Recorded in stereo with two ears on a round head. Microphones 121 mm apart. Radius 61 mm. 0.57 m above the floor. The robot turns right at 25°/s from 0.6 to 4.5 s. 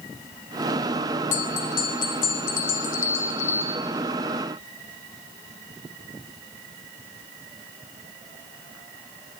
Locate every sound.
1.3 s a bell: 65° left, 2 m; by 3.8 s 130° left, 2 m